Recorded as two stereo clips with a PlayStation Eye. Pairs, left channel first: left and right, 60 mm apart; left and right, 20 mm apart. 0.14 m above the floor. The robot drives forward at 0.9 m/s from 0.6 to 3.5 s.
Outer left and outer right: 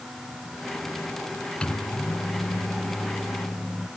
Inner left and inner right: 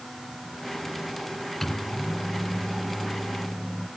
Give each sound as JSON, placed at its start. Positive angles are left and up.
{"t": 1.6, "sound": "a microwave", "side_deg": 20, "distance_m": 1.0}